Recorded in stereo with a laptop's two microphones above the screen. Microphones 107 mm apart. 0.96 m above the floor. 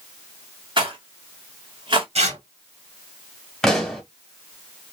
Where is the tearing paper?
85° right, 1.7 m.